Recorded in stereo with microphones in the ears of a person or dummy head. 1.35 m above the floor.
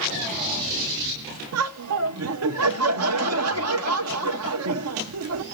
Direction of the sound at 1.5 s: 75° right (ahead or behind).